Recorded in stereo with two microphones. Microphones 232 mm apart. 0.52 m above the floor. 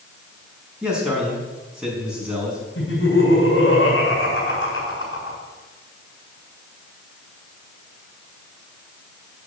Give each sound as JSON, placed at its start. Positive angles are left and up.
{"t": 0.8, "sound": "a man speaking", "side_deg": -5, "distance_m": 5.0}
{"t": 2.8, "sound": "laughter", "side_deg": 50, "distance_m": 6.5}